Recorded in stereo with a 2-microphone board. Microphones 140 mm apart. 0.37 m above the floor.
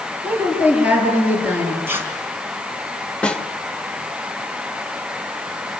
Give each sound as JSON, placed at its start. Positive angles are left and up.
{"t": 0.2, "sound": "a woman speaking", "side_deg": -10, "distance_m": 8.5}
{"t": 1.9, "sound": "tearing paper", "side_deg": -15, "distance_m": 4.0}
{"t": 3.2, "sound": "a snare drum", "side_deg": 5, "distance_m": 1.3}